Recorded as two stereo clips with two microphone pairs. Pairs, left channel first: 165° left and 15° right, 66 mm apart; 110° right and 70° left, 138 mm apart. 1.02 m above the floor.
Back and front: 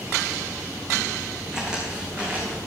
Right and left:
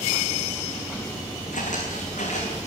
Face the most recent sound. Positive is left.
turn(degrees=-80)